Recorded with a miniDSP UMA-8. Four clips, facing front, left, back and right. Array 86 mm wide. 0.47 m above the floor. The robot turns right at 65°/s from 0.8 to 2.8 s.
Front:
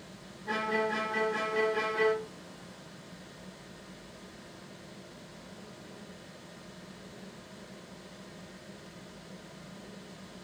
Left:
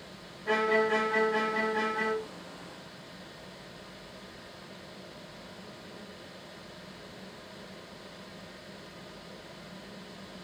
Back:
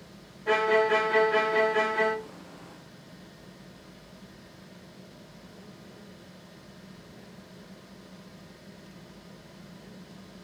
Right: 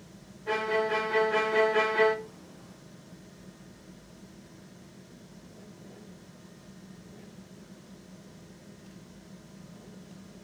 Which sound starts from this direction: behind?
A violin, at 0.5 s.